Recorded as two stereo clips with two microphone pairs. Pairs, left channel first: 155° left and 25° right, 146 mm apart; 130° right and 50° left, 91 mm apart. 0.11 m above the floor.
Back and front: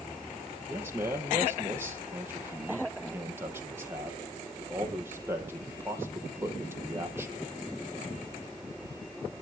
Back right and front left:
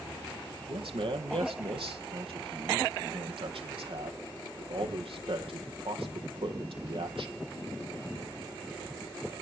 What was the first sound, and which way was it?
A man speaking, 50° left.